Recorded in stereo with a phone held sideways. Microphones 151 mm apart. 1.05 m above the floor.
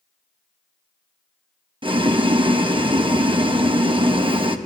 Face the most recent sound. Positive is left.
turn(degrees=-35)  # may be behind; listen again after turning